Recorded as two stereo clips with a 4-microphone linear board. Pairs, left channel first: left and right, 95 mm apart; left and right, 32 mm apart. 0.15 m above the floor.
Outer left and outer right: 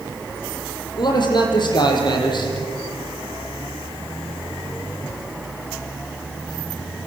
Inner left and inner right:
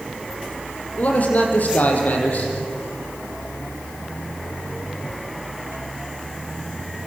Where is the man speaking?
50° left (ahead or behind), 5 m.